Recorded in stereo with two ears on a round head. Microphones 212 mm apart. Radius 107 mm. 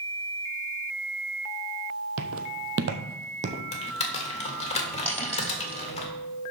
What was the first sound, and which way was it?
Footsteps, 70° right (ahead or behind).